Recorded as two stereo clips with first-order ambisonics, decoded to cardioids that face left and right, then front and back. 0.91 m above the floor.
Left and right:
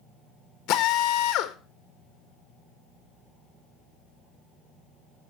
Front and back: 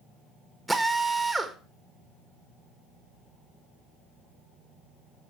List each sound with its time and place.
0.7 s a drill: 100° left, 1.3 m